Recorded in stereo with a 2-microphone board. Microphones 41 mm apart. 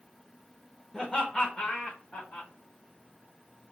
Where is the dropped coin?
I don't hear a dropped coin.